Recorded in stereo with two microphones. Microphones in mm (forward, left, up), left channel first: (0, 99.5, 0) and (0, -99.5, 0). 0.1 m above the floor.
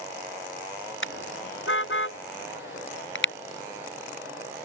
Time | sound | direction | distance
1.0 | a car horn | 75° left (ahead or behind) | ?